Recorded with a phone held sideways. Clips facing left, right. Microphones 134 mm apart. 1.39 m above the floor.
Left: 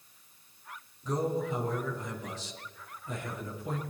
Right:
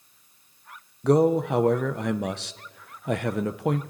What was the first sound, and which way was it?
A man speaking, 75° right (ahead or behind).